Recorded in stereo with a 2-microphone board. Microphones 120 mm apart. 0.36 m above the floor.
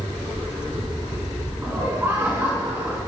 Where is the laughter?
20° right (ahead or behind), 4 m.